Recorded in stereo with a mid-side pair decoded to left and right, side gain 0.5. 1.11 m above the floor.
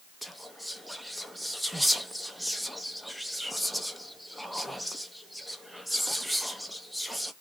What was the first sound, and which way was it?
Whispering, straight ahead.